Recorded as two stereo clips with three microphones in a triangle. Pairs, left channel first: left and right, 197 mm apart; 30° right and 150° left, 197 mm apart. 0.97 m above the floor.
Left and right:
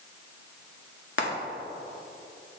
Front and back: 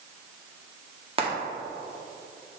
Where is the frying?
90° left, 1.7 m.